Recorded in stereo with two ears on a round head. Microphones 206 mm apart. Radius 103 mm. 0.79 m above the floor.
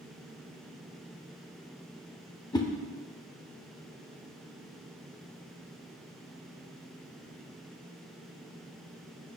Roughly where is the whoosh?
Centre.